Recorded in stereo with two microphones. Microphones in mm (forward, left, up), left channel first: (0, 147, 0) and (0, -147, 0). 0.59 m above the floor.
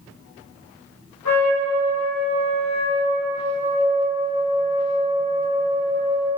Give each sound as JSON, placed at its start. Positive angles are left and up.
{"t": 1.2, "sound": "a trumpet", "side_deg": 80, "distance_m": 1.9}